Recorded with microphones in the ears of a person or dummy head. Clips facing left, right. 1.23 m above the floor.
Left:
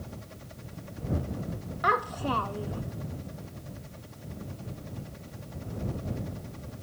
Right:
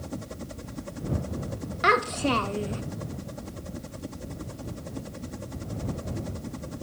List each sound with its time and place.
0.0 s a helicopter: 65° right (ahead or behind)
1.8 s a child speaking: 20° right (ahead or behind)